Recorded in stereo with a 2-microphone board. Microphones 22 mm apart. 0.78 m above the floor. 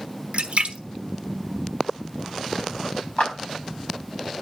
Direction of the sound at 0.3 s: 85° right.